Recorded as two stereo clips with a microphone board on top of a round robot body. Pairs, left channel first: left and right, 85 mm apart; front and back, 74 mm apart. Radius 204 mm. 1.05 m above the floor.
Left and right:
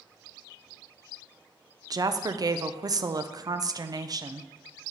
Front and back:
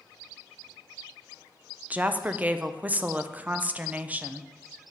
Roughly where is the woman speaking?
Behind right.